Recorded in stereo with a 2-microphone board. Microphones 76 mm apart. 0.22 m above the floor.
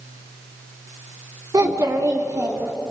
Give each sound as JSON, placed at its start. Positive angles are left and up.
{"t": 1.5, "sound": "a child speaking", "side_deg": -55, "distance_m": 1.7}